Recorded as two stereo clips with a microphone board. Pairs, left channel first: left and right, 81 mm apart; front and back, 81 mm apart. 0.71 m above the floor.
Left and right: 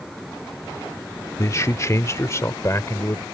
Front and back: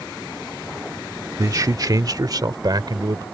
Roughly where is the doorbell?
No doorbell in this recording.